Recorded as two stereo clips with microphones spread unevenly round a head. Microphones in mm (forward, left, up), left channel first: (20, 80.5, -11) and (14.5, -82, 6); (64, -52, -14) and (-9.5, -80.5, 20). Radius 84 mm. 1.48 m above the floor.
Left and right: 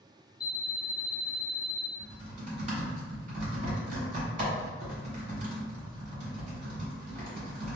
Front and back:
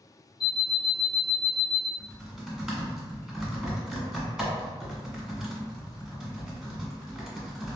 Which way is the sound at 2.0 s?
95° right.